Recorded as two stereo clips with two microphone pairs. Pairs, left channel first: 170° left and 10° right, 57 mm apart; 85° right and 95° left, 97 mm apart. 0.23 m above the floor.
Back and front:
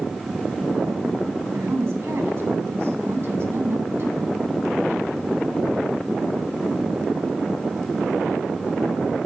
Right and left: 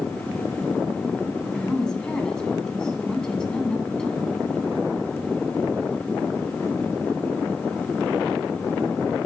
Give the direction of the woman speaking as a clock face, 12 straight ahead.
12 o'clock.